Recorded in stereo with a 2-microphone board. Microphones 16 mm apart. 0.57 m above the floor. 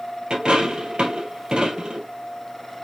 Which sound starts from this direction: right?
A dropped coin, at 0.3 s.